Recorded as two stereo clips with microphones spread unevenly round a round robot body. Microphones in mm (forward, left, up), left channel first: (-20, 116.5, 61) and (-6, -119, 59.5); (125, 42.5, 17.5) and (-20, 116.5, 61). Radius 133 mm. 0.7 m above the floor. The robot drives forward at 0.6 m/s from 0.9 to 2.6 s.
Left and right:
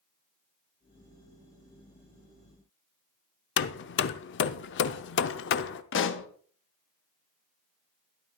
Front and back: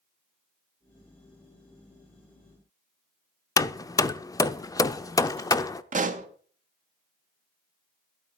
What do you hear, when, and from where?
3.6 s hammering: 50° left, 0.5 m
5.9 s a pop: 110° left, 1.0 m